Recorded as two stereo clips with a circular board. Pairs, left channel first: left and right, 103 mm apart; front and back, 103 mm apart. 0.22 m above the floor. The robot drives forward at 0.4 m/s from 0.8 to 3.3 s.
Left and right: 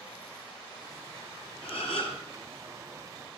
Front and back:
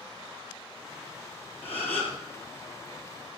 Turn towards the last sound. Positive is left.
turn(degrees=80)